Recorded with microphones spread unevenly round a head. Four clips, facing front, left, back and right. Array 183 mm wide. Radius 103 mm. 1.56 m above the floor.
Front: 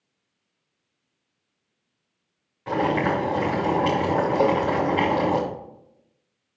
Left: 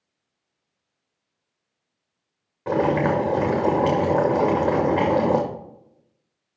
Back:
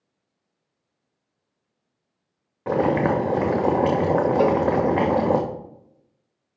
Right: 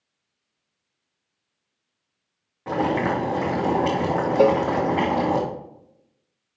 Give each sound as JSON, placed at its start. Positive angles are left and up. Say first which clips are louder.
{"t": 2.7, "sound": "boiling", "louder": "left 2 dB, back 2 dB", "azimuth_deg": 165, "distance_m": 2.0}
{"t": 4.4, "sound": "a cowbell", "louder": "right 3 dB, even", "azimuth_deg": -85, "distance_m": 0.5}